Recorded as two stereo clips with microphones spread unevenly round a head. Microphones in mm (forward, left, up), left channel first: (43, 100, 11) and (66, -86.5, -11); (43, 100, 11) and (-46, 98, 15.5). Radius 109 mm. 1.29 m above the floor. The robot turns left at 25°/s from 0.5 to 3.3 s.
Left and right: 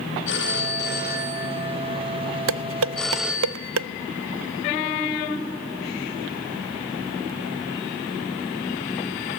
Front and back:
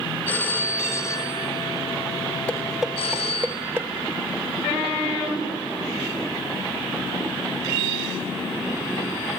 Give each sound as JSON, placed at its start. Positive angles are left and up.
{"t": 0.3, "sound": "a phone ringing", "azimuth_deg": 75, "distance_m": 5.5}
{"t": 2.5, "sound": "dishes clattering", "azimuth_deg": -80, "distance_m": 0.6}